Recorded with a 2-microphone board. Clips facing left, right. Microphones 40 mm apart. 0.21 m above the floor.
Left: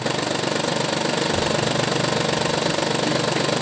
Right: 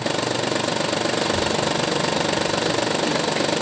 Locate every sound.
1.2 s a child speaking: 10° right (ahead or behind), 0.6 m